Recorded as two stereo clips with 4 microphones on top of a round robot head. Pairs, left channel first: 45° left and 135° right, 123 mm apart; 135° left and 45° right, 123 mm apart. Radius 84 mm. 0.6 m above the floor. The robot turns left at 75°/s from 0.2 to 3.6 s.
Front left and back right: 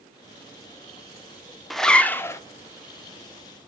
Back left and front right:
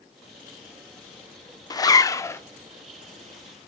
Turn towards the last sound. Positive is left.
turn(degrees=-5)